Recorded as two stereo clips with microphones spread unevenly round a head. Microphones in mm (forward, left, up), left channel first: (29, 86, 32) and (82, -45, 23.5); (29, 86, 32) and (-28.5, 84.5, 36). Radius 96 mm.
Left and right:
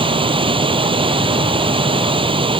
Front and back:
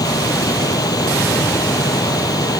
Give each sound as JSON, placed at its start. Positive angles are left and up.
{"t": 0.0, "sound": "a machine running", "azimuth_deg": -15}